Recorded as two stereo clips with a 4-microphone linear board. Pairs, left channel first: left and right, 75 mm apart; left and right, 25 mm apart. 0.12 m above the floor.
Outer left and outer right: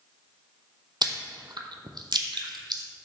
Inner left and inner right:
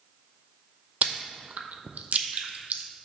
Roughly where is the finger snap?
No finger snap in this recording.